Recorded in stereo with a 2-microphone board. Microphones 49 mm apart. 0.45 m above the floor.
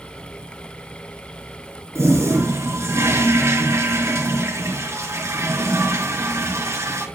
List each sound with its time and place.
1.9 s a toilet flushing: 75° right (ahead or behind), 4 m